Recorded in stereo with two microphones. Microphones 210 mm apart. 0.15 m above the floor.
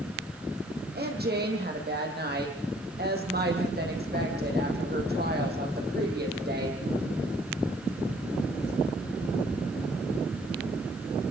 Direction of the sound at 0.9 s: 50° right (ahead or behind).